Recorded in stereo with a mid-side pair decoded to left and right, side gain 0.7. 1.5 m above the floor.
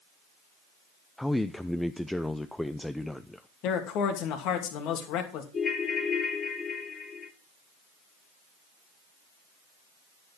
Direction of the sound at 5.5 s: 30° left.